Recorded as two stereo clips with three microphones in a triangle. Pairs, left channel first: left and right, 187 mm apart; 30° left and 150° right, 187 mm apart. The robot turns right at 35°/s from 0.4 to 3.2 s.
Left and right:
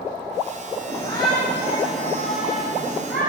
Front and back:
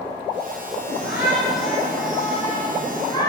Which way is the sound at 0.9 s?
15° left.